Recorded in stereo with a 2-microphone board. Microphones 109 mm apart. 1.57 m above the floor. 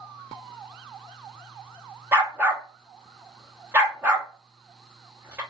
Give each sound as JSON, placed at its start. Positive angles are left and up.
{"t": 2.1, "sound": "a dog barking", "side_deg": -20, "distance_m": 1.1}